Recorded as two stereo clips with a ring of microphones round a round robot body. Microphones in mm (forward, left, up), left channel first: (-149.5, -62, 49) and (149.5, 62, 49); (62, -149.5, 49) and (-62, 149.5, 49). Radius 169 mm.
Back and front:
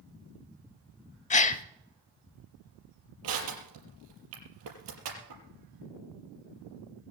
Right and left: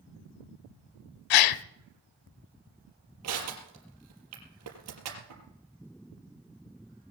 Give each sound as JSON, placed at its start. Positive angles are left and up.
{"t": 1.3, "sound": "a gasp", "azimuth_deg": -90, "distance_m": 0.7}
{"t": 3.2, "sound": "crushing", "azimuth_deg": 70, "distance_m": 5.0}